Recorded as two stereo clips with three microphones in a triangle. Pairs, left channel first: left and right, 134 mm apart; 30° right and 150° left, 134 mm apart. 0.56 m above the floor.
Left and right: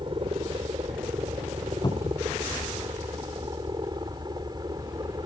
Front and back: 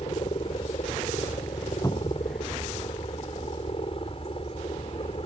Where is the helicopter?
55° right; by 5.3 s 45° right.